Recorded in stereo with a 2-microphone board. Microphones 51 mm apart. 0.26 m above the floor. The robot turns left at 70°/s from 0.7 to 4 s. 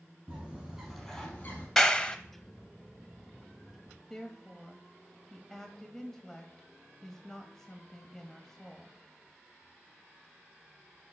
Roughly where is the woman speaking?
Centre.